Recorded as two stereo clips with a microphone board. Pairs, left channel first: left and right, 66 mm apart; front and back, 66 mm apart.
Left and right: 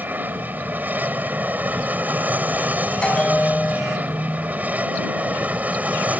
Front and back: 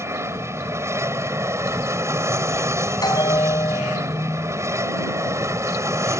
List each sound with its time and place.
0.0 s an aircraft: 145° right; by 6.2 s 150° right
3.0 s a bell: 15° left